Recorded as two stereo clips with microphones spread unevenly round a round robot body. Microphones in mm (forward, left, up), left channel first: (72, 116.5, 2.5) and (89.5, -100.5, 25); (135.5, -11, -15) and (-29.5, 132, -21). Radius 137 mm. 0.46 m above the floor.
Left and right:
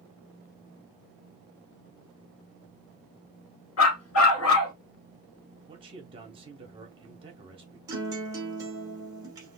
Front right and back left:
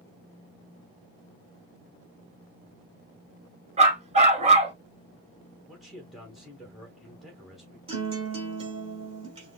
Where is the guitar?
160° right, 1.1 m.